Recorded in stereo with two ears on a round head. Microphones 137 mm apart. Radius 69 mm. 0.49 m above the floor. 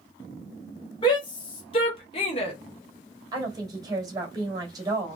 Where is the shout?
30° left (ahead or behind), 1.7 m; by 2.5 s 40° left (ahead or behind), 1.6 m.